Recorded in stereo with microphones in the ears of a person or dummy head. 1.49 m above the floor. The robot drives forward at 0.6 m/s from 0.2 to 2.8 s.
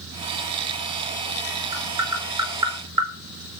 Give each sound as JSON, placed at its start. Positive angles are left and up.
{"t": 1.7, "sound": "tapping", "side_deg": -20, "distance_m": 5.5}